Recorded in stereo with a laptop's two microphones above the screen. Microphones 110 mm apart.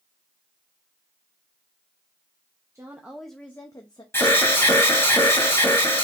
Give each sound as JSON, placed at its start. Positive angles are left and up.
{"t": 2.8, "sound": "a woman speaking", "side_deg": -25, "distance_m": 1.0}
{"t": 4.1, "sound": "an alarm", "side_deg": 25, "distance_m": 2.5}